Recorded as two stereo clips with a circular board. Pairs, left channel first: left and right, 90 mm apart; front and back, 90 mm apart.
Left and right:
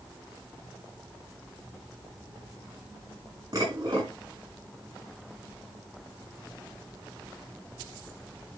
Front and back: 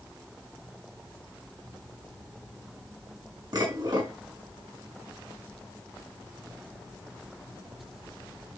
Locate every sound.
3.5 s dishes clattering: 135° right, 6.5 m